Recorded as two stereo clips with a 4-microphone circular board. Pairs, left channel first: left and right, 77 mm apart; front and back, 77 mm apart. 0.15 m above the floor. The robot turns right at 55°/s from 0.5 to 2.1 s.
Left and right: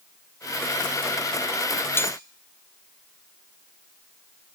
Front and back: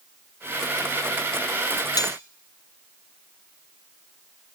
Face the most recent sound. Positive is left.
turn(degrees=35)